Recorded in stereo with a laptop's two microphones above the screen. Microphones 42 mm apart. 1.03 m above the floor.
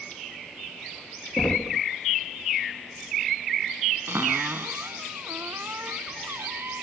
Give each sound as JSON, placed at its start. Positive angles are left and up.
{"t": 1.4, "sound": "knocking", "side_deg": 50}
{"t": 4.1, "sound": "a cupboard door", "side_deg": -60}